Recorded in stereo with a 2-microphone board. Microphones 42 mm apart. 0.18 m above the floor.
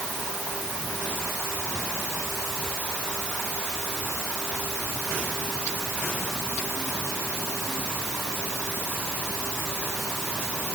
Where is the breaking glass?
I don't hear breaking glass.